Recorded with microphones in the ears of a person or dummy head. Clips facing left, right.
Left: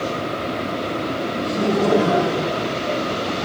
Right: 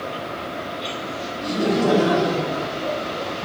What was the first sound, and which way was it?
Laughter, 50° right (ahead or behind).